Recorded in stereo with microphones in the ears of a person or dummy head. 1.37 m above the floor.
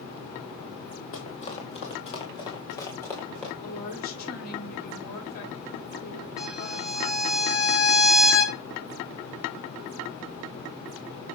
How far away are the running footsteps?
About 2.5 m.